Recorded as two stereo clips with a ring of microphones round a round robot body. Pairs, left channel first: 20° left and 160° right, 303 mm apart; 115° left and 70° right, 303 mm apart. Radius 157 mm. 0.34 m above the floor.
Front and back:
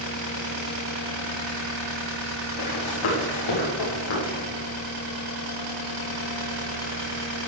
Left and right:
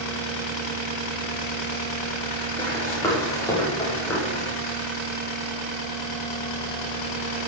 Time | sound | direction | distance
2.6 | running footsteps | 35° left | 6 m